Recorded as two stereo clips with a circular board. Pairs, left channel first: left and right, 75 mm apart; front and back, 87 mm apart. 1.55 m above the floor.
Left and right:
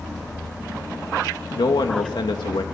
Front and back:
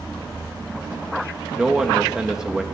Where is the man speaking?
95° left, 2 m.